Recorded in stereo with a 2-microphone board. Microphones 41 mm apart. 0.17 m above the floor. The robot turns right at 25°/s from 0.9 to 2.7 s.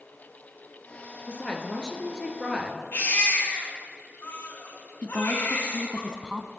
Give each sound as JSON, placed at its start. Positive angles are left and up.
{"t": 1.3, "sound": "a woman speaking", "azimuth_deg": 145, "distance_m": 2.5}
{"t": 2.9, "sound": "a baby crying", "side_deg": 70, "distance_m": 5.0}
{"t": 5.0, "sound": "a woman speaking", "side_deg": -20, "distance_m": 1.0}